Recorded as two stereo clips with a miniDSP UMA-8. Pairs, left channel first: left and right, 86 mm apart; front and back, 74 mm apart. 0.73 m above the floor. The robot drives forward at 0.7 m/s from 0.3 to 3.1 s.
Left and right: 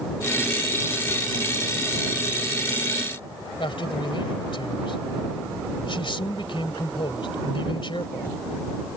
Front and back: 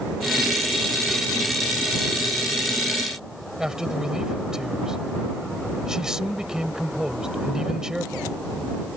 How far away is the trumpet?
No trumpet in this recording.